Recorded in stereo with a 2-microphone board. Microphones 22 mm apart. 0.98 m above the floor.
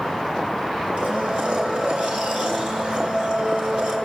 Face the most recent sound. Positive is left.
turn(degrees=-65)  # may be behind; listen again after turning